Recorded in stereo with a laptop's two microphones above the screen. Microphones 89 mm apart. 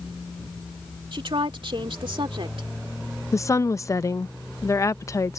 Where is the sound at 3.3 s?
35° left (ahead or behind).